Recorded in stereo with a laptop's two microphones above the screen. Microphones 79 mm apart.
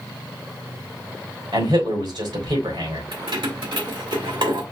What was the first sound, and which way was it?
A man speaking, 85° right.